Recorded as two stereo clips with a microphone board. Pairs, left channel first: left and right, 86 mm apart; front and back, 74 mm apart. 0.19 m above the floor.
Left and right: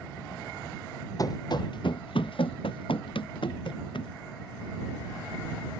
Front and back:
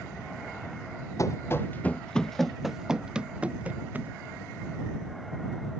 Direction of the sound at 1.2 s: 45° left.